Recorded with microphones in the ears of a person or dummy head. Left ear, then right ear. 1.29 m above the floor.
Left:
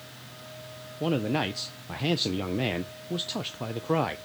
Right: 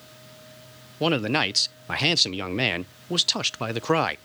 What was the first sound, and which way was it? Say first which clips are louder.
A man speaking: right 5 dB; 65° right (ahead or behind).